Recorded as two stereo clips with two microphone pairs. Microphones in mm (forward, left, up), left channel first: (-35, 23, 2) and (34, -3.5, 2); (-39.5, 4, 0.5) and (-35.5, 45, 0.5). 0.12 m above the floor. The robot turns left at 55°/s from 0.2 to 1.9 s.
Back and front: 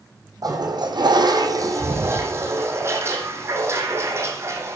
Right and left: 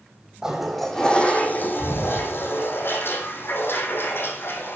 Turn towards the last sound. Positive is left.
turn(degrees=-75)